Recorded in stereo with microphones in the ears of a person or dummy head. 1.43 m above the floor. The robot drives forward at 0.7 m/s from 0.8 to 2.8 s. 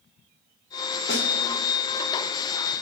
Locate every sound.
1.1 s a snare drum: 55° left (ahead or behind), 2 m; by 1.3 s 50° left (ahead or behind), 2 m